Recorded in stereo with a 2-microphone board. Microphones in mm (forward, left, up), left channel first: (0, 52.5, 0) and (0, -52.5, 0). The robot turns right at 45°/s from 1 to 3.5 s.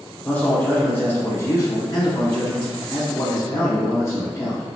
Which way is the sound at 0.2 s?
25° left.